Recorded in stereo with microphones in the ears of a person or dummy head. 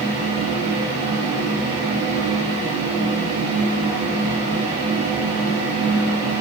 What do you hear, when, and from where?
0.0 s a fan: 25° right (ahead or behind), 3.5 m